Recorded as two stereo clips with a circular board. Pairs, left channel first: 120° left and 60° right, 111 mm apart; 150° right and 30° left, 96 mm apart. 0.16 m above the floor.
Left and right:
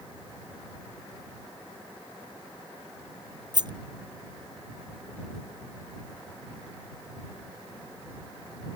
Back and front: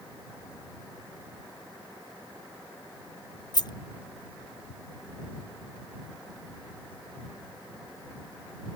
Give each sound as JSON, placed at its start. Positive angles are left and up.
{"t": 3.5, "sound": "a rattle", "azimuth_deg": -110}